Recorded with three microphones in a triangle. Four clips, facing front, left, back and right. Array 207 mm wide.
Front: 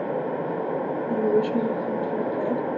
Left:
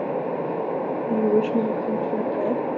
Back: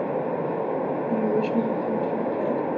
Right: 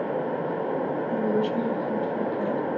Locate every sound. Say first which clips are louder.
1.1 s a woman speaking: left 6 dB, front 3 dB; 75° left, 1.6 m